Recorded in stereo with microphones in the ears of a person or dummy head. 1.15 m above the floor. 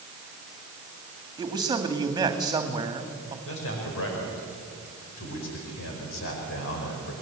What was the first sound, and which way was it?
A man speaking, 20° right (ahead or behind).